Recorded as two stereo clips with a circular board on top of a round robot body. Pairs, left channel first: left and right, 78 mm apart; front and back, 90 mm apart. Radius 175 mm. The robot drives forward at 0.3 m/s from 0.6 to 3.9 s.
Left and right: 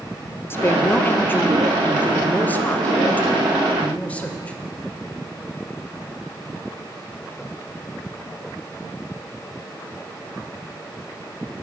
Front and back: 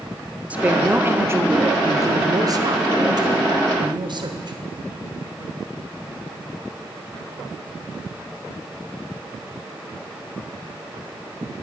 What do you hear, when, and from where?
0.5 s a woman speaking: 120° left, 1.0 m; by 4.5 s 160° left, 1.6 m